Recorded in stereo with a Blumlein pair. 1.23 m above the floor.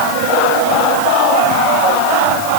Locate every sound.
Only background noise.